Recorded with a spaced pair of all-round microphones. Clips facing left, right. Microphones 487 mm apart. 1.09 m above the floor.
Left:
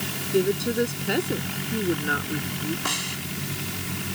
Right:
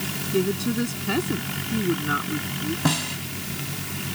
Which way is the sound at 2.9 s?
75° right (ahead or behind).